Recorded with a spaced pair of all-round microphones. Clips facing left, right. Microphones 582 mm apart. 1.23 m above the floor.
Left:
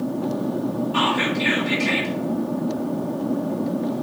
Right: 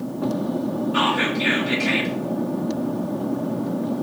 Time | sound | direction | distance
0.9 | whispering | 25° left (ahead or behind) | 3.5 m